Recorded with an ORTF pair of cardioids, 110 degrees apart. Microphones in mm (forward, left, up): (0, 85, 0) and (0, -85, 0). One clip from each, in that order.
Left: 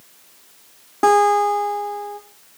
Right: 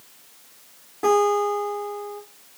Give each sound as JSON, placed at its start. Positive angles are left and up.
{"t": 1.0, "sound": "a guitar", "azimuth_deg": 60, "distance_m": 3.0}